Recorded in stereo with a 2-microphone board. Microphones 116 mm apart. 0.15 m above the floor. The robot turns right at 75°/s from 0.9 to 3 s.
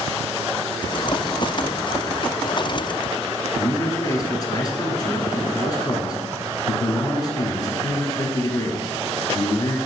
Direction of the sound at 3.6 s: 35° left (ahead or behind).